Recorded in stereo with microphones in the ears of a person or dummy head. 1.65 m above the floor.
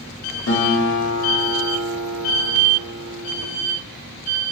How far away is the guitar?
About 0.9 m.